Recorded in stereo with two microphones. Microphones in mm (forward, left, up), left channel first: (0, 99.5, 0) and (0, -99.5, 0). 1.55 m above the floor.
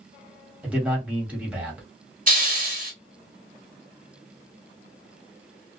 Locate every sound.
0.6 s a man speaking: 5° right (ahead or behind), 1.5 m
2.3 s a hiss: 40° right (ahead or behind), 1.6 m